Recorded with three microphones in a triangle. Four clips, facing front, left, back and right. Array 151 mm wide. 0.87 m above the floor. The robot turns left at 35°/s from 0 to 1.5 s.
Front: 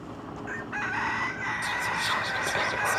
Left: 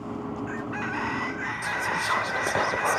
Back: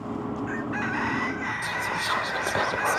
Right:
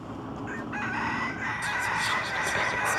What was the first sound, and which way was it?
Whispering, 120° left.